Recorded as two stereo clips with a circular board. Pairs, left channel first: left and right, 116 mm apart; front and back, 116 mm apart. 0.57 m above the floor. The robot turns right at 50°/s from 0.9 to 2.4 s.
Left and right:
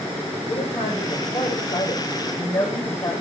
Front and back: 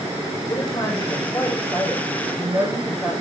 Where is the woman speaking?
50° left, 3.5 m; by 3.1 s 125° left, 3.5 m.